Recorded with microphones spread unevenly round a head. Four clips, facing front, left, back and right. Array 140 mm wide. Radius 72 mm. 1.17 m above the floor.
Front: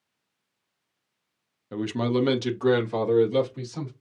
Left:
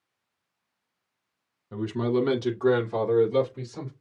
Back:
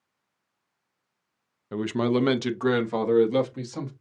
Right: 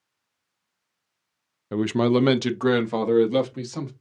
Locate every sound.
1.7 s a man speaking: 85° right, 0.5 m; by 3.9 s 110° right, 1.8 m